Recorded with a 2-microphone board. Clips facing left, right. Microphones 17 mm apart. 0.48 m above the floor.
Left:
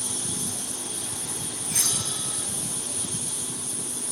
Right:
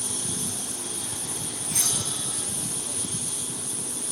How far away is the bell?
About 2 m.